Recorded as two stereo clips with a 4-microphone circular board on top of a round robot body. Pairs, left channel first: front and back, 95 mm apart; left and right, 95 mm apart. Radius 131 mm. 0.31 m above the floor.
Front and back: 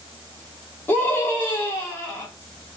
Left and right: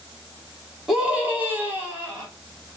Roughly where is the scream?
Ahead.